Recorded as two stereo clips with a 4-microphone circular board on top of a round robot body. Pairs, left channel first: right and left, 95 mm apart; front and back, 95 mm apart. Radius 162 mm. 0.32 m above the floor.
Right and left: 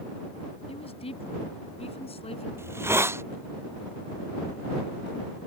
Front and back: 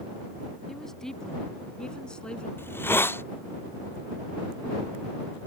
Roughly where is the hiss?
Ahead left.